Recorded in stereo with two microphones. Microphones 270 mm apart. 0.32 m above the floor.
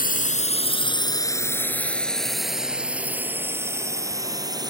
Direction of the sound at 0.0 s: 30° left (ahead or behind).